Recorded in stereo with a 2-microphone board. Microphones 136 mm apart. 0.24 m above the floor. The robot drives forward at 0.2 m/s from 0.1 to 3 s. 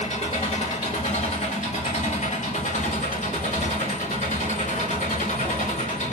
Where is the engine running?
55° left (ahead or behind), 1.6 m; by 6.1 s 70° left (ahead or behind), 1.4 m.